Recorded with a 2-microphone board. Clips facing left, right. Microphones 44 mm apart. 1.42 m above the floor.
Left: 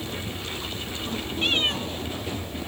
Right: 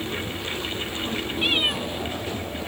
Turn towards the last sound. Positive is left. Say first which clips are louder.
# right 1 dB
turn(degrees=-10)  # may be behind; listen again after turning